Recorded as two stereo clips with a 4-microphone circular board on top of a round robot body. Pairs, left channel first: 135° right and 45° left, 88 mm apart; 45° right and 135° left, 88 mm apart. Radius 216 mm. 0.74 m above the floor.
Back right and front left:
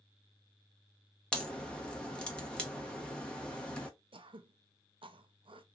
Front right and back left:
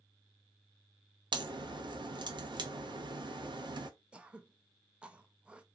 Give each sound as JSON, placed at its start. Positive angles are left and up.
{"t": 1.3, "sound": "a crack", "azimuth_deg": 145, "distance_m": 1.2}
{"t": 4.1, "sound": "throat clearing", "azimuth_deg": 55, "distance_m": 0.5}